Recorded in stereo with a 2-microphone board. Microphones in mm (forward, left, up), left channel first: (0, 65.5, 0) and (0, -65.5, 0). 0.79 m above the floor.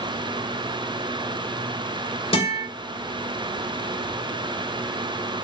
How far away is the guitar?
About 3 m.